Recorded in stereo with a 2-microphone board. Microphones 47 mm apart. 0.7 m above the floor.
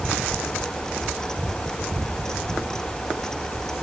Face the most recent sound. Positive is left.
No sound to turn to.